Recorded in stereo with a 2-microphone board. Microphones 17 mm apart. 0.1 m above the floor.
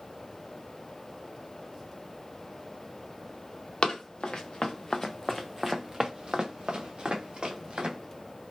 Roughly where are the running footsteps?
Left.